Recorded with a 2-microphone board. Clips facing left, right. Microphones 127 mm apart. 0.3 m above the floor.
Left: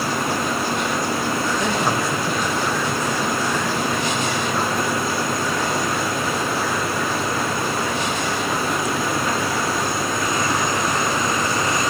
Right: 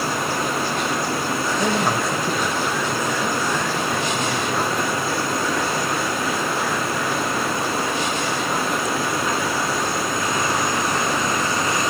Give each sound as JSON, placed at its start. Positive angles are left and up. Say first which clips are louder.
{"t": 1.6, "sound": "a man speaking", "louder": "even", "side_deg": -10, "distance_m": 1.0}